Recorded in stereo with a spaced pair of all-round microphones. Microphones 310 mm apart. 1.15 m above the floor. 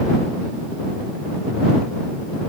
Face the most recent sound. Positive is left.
No sound to turn to.